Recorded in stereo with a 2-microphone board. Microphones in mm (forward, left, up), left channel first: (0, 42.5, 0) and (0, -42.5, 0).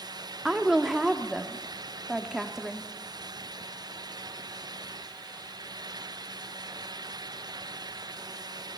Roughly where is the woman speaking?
Centre.